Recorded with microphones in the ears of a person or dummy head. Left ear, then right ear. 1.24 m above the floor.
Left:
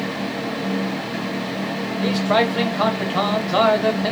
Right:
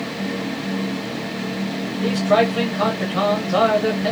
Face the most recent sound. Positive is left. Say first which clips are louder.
# right 2 dB
turn(degrees=20)  # may be behind; listen again after turning